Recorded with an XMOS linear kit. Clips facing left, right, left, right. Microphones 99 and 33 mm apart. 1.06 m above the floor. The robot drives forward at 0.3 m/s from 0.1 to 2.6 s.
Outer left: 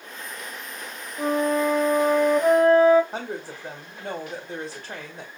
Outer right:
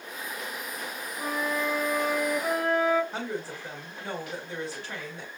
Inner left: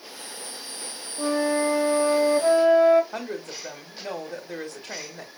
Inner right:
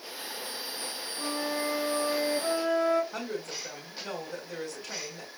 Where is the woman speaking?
45° left (ahead or behind), 1.5 m.